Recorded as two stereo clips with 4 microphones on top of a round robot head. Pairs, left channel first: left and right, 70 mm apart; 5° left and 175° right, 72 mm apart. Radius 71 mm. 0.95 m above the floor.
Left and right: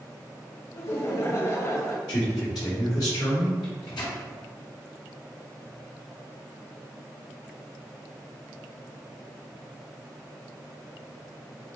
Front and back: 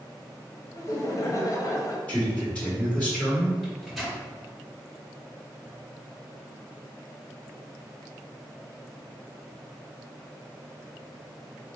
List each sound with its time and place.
0.7 s laughter: 45° left, 1.1 m
2.1 s a man speaking: 80° left, 1.9 m
3.6 s a microwave: 95° left, 1.8 m